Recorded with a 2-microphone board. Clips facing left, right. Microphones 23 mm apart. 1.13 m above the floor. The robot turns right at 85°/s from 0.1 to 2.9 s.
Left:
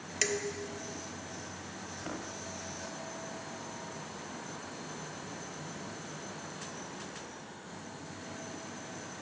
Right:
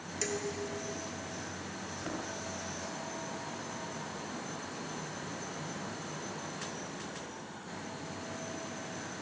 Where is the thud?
15° right (ahead or behind), 8.5 m; by 2.3 s 15° left (ahead or behind), 8.5 m.